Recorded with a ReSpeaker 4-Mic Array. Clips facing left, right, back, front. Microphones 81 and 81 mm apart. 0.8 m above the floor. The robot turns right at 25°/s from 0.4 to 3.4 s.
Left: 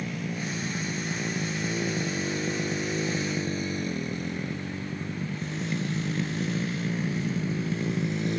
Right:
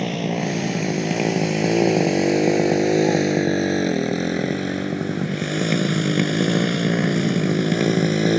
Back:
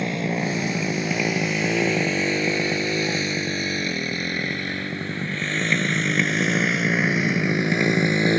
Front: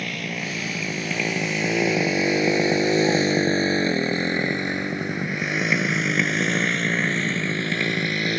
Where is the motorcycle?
115° right.